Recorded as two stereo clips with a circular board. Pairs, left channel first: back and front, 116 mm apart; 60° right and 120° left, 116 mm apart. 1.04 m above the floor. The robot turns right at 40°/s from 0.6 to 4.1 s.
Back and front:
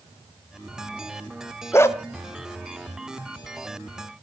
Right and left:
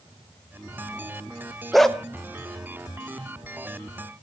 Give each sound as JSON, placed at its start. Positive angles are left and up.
{"t": 1.7, "sound": "a dog barking", "azimuth_deg": -150, "distance_m": 0.8}